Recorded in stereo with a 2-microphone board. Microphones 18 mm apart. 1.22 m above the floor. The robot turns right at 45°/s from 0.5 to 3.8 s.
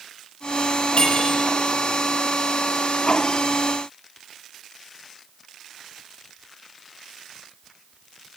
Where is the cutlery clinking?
60° left (ahead or behind), 6 m; by 1.4 s 45° left (ahead or behind), 6 m.